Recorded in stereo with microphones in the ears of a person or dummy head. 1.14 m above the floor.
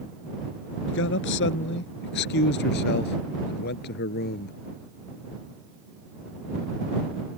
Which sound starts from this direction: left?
A man speaking, at 0.9 s.